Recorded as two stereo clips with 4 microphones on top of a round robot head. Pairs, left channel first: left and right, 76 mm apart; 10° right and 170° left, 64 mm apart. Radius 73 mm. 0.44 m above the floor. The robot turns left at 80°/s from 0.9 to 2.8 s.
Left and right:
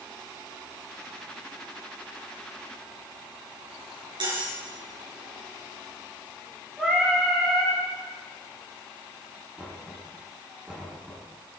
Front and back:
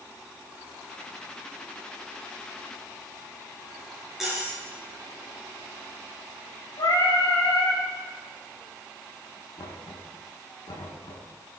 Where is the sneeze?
I don't hear a sneeze.